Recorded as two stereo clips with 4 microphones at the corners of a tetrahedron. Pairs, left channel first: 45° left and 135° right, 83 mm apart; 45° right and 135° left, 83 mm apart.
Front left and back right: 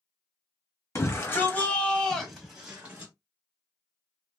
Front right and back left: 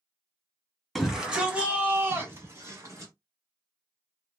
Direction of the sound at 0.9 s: 50° left.